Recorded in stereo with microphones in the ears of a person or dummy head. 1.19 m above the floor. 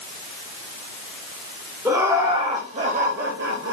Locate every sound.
1.9 s laughter: 10° right (ahead or behind), 1.1 m; by 3.7 s 60° right (ahead or behind), 0.7 m